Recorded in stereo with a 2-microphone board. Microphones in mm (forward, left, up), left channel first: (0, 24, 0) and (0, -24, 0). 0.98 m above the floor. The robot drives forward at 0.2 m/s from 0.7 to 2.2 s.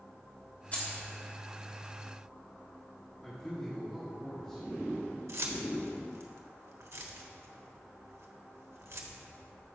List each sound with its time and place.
0.7 s keys jangling: 30° left (ahead or behind), 1.5 m
3.2 s a man speaking: 15° left (ahead or behind), 1.4 m
5.3 s keys jangling: 70° right (ahead or behind), 1.0 m